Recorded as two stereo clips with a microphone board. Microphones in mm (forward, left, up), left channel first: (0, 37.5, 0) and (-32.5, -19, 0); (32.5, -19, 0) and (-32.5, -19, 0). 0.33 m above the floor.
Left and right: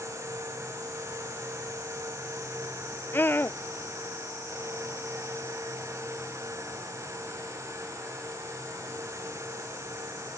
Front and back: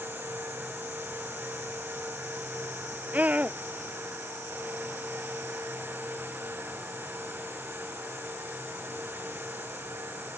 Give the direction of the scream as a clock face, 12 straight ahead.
8 o'clock.